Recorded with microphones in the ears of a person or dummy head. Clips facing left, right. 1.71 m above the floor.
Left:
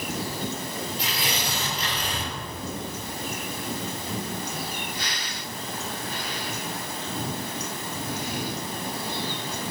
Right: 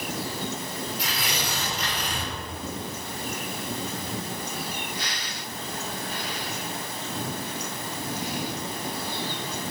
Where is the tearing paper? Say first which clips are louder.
Left 1 dB; 25° left (ahead or behind), 2 m.